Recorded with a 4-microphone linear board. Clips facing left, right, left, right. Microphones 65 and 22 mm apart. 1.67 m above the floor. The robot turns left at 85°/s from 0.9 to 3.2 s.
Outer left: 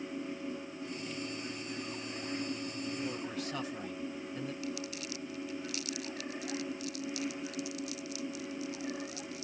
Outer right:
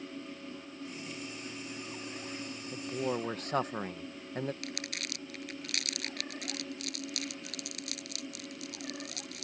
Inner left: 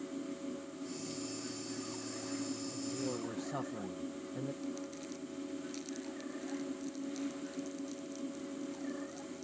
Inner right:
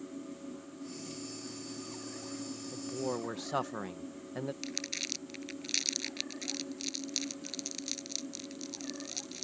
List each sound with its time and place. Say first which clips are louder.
2.7 s a man speaking: outer right 4 dB, inner right 2 dB; 90° right; by 4.5 s 130° right
4.6 s crumpling: outer left 2 dB, inner right 5 dB; 65° right (ahead or behind)